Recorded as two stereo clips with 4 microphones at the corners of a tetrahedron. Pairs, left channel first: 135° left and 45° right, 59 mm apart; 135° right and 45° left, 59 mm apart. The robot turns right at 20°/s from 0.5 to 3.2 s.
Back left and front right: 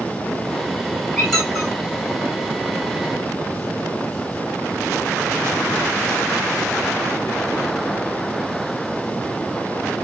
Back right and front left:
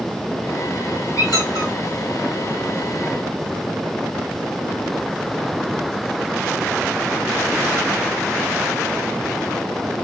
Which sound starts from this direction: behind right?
A squeak, at 1.2 s.